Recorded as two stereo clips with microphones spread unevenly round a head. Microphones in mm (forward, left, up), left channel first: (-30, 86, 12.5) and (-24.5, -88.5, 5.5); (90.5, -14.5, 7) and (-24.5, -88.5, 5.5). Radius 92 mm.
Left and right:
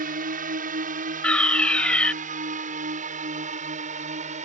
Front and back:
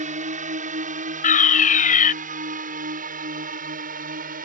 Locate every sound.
0.0 s a drone: 125° right; by 4.5 s 135° right
1.2 s a fire alarm: 10° left